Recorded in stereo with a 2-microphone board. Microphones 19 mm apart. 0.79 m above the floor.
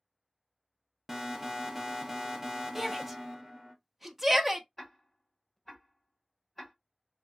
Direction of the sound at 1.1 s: 20° right (ahead or behind).